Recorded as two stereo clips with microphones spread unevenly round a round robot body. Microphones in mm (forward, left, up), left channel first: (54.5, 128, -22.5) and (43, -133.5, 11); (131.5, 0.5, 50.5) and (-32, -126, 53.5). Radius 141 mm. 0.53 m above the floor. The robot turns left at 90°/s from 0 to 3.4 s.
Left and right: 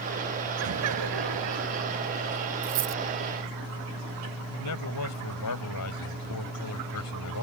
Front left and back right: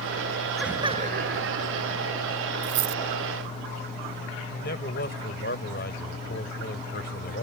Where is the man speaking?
85° left.